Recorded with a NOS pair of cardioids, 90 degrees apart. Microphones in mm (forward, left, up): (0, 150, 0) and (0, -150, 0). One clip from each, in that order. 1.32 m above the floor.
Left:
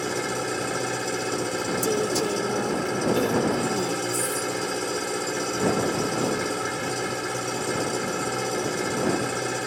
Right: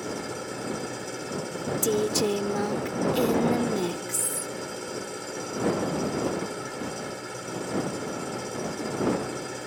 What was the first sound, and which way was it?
An engine running, 55° left.